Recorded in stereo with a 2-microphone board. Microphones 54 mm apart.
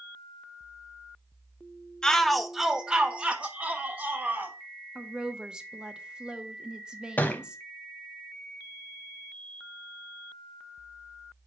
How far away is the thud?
About 0.8 m.